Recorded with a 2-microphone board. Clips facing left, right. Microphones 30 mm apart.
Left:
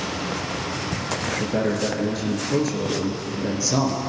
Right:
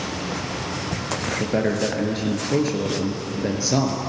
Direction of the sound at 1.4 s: 25° right (ahead or behind).